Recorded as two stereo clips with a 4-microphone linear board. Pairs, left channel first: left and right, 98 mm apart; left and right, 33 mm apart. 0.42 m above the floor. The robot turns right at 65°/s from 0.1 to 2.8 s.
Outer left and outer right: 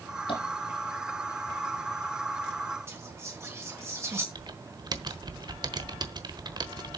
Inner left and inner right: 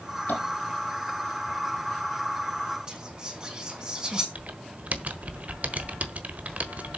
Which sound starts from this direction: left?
Tapping, at 0.3 s.